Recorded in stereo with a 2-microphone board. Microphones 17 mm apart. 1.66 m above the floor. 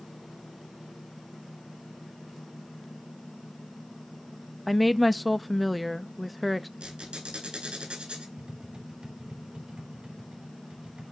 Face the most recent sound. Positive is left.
turn(degrees=-70)  # may be behind; listen again after turning